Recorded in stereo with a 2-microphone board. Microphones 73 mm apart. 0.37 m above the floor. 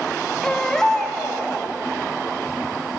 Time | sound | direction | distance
0.4 | a baby crying | 10° left (ahead or behind) | 0.8 m